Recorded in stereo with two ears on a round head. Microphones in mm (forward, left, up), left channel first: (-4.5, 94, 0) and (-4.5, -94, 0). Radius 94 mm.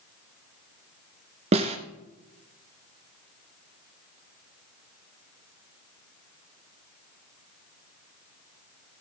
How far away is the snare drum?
About 1.8 m.